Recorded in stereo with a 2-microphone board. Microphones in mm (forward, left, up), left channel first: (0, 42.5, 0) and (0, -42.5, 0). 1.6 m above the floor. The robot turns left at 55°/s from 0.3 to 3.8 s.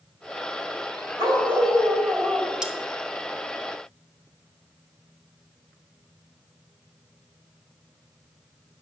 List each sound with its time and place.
1.2 s a dog barking: 85° right, 2.5 m; by 2.5 s 160° right, 2.5 m
2.6 s cutlery clinking: 10° right (ahead or behind), 0.9 m; by 2.8 s 15° right (ahead or behind), 0.9 m